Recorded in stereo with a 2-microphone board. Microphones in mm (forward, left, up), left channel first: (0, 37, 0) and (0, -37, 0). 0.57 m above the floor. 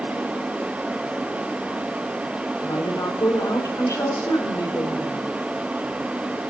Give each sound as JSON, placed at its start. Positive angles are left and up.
{"t": 2.6, "sound": "a woman speaking", "side_deg": 60, "distance_m": 1.8}